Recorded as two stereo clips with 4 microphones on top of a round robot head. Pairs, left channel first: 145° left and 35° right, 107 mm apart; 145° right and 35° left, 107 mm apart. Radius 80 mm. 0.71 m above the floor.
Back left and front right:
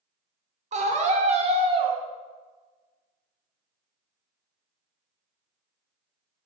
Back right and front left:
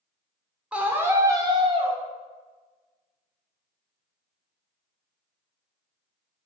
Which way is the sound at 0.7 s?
45° right.